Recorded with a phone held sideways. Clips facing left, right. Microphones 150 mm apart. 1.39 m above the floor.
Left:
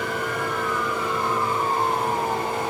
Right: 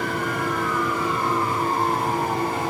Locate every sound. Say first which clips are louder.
0.0 s a machine running: right 1 dB; 35° right (ahead or behind), 4.5 m